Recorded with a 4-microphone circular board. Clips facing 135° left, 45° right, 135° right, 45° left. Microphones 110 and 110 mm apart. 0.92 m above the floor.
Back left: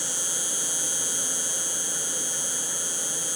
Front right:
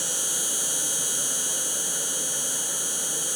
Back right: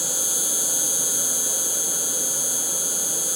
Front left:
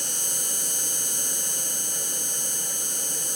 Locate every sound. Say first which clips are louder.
0.0 s an insect: front right 1 dB, back right 5 dB; 50° right